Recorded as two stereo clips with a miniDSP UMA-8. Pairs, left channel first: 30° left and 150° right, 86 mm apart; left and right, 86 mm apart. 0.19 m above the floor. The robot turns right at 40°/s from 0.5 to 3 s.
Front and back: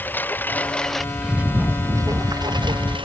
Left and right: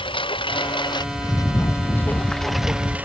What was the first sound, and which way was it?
A lawn mower, 100° left.